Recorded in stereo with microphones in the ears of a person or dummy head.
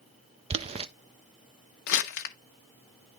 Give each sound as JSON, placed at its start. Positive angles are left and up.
{"t": 0.5, "sound": "boiling", "side_deg": -30, "distance_m": 0.5}
{"t": 1.9, "sound": "crumpling", "side_deg": 60, "distance_m": 0.9}